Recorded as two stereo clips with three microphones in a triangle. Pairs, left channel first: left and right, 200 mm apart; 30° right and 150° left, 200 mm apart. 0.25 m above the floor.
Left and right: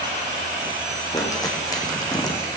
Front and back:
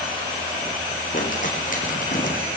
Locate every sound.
1.1 s crumpling: 15° left, 3 m